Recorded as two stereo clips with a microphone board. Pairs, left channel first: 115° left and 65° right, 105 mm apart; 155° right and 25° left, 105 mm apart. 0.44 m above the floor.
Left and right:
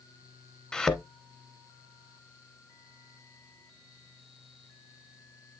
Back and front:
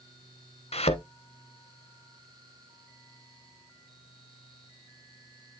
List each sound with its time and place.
0.7 s a thud: 165° right, 1.1 m